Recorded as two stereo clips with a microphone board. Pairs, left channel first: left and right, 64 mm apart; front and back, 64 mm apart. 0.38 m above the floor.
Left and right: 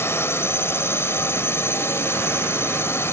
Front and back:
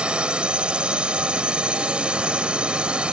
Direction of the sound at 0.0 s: 115° left.